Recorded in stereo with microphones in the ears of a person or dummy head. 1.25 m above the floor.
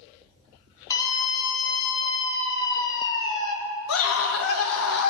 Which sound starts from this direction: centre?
A scream, at 0.9 s.